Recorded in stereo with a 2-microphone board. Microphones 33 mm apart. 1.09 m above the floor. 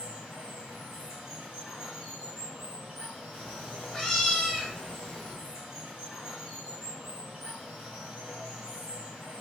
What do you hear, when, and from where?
0.0 s running water: 20° right (ahead or behind), 1.9 m
3.3 s a cat meowing: 10° left (ahead or behind), 1.4 m